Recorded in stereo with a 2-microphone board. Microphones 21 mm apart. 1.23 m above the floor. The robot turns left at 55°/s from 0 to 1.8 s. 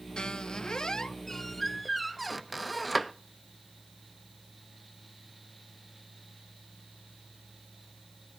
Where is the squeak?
95° left, 0.6 m; by 3.1 s 5° left, 0.6 m.